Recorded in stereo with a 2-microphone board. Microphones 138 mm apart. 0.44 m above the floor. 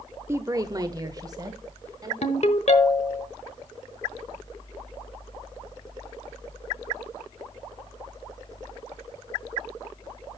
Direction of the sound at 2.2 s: 50° left (ahead or behind).